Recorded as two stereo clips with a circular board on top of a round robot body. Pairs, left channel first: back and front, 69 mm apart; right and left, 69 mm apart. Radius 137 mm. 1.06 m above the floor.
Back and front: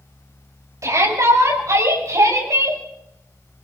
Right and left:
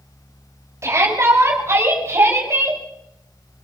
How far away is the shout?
About 8.5 m.